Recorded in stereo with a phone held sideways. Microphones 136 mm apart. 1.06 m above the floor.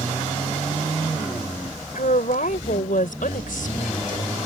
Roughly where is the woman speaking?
Left.